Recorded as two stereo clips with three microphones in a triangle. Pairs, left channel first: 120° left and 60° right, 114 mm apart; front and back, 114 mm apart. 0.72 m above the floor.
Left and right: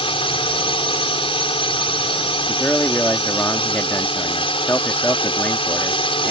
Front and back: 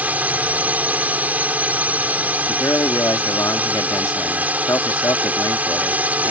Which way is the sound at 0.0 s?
105° left.